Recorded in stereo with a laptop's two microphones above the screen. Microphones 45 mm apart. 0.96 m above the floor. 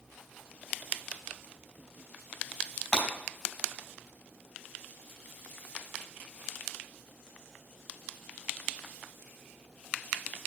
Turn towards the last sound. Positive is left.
turn(degrees=30)  # may be behind; listen again after turning